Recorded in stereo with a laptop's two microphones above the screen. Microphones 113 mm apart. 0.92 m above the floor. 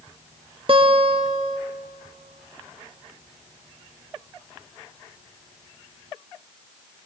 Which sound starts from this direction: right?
A guitar, at 0.7 s.